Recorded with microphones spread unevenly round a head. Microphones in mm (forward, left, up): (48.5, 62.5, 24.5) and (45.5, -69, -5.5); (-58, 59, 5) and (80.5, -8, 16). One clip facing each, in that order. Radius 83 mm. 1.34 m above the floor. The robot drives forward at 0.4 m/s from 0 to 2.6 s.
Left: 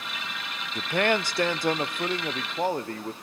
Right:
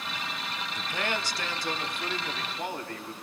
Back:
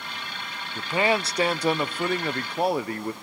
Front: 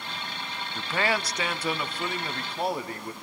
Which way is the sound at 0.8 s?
80° left.